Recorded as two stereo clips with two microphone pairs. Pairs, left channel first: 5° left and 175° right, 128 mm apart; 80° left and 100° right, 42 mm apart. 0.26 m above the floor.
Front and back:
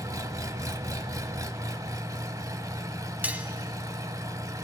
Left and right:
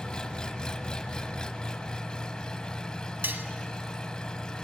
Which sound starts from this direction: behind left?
An engine running, at 0.0 s.